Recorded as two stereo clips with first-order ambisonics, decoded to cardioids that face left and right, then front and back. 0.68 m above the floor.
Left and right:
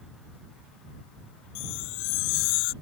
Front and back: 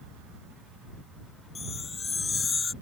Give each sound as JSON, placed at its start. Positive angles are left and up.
{"t": 1.6, "sound": "a chime", "azimuth_deg": 75}